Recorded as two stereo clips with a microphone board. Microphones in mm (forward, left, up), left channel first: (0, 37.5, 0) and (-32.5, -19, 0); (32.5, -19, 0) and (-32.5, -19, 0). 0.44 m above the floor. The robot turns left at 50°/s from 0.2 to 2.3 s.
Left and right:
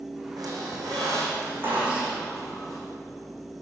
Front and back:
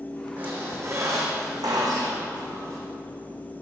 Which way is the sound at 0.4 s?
115° right.